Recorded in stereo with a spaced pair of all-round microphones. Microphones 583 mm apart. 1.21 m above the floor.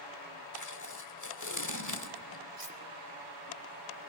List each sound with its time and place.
0.5 s tape being pulled: 30° left (ahead or behind), 1.3 m
2.6 s cutlery clinking: 70° right (ahead or behind), 1.5 m